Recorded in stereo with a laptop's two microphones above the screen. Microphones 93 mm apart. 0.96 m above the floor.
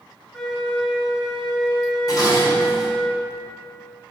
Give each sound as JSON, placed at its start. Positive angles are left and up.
{"t": 0.3, "sound": "a flute", "side_deg": 10, "distance_m": 2.5}
{"t": 2.1, "sound": "dishes clattering", "side_deg": 45, "distance_m": 2.0}